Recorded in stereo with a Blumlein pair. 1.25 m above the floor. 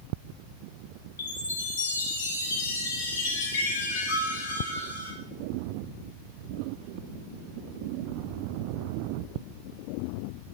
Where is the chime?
60° left, 8.5 m.